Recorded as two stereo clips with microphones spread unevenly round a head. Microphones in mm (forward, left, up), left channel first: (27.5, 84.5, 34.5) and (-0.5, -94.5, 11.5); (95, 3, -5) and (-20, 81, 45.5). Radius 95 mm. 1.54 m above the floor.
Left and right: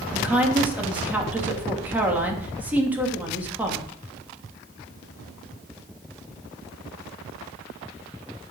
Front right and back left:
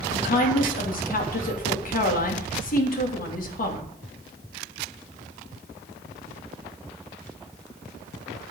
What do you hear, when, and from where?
0.1 s a woman speaking: 15° right, 3 m